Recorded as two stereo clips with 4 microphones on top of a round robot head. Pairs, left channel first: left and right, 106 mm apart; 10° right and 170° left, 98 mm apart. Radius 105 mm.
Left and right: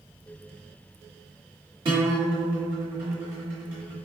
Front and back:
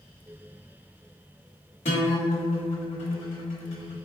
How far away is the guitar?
About 1.0 m.